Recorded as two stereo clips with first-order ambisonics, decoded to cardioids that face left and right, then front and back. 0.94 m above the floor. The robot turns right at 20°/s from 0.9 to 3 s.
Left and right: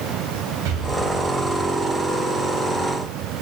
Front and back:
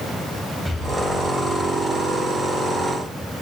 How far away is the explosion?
About 4.5 m.